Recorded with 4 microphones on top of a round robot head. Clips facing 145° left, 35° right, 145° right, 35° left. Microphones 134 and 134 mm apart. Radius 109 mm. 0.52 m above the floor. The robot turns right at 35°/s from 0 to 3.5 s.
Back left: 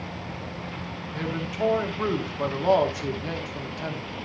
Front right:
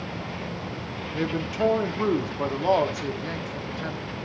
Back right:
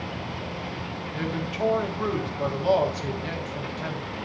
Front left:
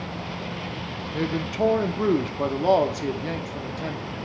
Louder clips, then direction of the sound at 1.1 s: Front right 3 dB, front left 5 dB; 5° right.